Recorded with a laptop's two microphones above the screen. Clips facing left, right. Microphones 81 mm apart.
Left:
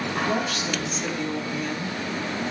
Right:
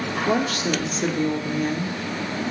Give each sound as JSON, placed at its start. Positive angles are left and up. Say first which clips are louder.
{"t": 0.3, "sound": "a woman speaking", "louder": "right 4 dB", "side_deg": -50, "distance_m": 3.0}